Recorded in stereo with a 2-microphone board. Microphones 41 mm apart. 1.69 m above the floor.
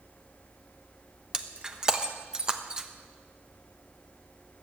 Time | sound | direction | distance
1.3 | breaking glass | 20° right (ahead or behind) | 1.0 m